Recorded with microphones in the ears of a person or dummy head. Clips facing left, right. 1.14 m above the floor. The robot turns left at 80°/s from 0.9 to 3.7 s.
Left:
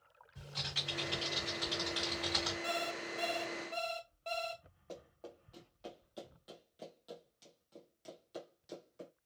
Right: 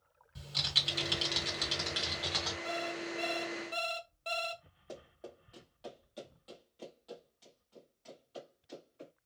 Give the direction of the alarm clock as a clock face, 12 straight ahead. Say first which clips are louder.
Right 2 dB; 10 o'clock.